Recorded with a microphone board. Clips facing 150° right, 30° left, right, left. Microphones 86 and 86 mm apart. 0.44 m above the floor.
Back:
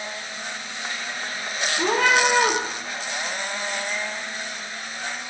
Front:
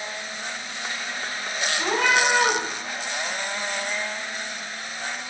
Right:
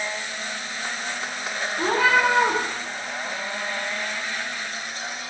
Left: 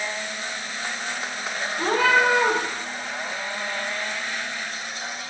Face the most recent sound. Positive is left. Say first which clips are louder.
# back 2 dB, even
turn(degrees=-170)